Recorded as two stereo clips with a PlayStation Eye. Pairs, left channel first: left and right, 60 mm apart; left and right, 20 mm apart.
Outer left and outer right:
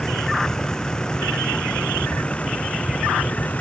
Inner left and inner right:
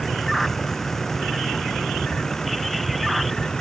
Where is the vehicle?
10° left (ahead or behind); by 3.6 s 25° left (ahead or behind).